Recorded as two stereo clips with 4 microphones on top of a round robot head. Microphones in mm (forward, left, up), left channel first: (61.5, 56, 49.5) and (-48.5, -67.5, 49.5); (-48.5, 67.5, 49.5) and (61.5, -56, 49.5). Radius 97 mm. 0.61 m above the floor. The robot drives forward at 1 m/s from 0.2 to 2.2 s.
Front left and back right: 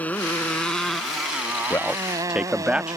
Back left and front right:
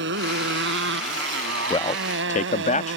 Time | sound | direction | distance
0.0 | a motorcycle | 35° right | ?
1.7 | a man speaking | 105° left | ?